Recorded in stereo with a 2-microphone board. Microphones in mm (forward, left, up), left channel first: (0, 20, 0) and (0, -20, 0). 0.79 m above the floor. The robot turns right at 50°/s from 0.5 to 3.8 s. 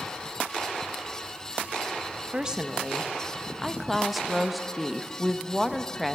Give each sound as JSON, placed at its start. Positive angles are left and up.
{"t": 2.3, "sound": "a woman speaking", "side_deg": -20, "distance_m": 0.7}